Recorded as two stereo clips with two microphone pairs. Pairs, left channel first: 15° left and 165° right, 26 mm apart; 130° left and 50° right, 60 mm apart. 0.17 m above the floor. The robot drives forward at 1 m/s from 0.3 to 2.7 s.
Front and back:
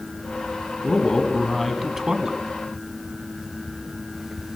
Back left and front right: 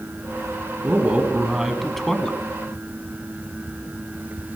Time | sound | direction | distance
0.8 | a man speaking | 10° right | 1.4 m